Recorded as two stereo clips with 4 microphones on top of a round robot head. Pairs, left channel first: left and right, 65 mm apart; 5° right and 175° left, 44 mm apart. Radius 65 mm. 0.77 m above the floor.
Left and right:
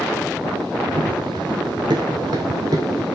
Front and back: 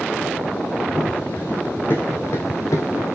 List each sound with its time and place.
0.9 s running footsteps: 85° right, 1.7 m; by 3.0 s 35° right, 1.6 m